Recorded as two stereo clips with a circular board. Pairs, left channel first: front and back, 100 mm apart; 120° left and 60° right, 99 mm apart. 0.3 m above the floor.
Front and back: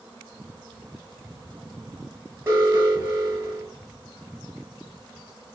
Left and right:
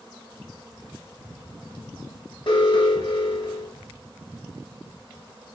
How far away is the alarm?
About 3 m.